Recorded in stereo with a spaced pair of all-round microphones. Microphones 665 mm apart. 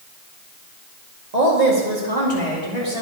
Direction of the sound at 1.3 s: 80° right.